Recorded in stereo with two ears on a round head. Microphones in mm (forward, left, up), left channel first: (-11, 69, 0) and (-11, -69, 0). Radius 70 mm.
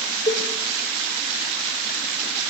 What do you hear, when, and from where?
0.3 s a cowbell: 30° left (ahead or behind), 3 m